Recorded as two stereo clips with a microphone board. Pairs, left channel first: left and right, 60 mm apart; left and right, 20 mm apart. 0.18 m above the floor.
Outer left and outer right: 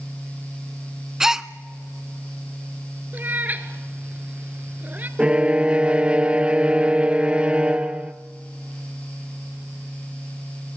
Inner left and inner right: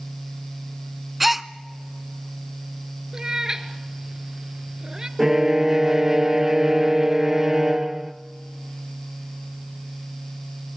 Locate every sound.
1.2 s a gasp: 10° right (ahead or behind), 0.6 m
3.1 s a cat meowing: 30° right (ahead or behind), 1.2 m
5.2 s a violin: 20° right (ahead or behind), 0.7 m